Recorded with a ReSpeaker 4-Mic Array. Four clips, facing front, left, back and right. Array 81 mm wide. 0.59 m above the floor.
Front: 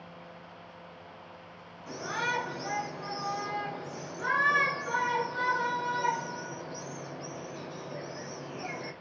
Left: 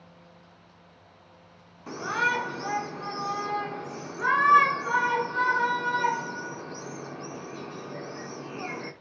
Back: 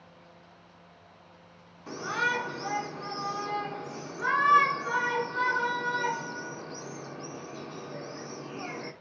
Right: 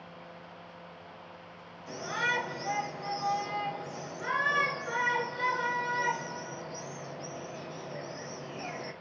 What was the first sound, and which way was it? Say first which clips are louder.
A shout: left 5 dB, back 3 dB; 110° left.